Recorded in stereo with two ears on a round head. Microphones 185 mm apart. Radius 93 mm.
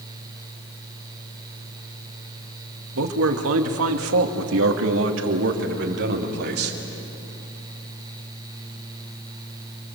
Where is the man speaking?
70° right (ahead or behind), 2 m; by 6.8 s 55° right (ahead or behind), 3.5 m.